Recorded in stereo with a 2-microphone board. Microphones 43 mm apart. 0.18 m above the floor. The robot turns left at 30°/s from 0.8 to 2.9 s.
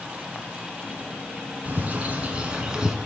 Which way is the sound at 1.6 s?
125° right.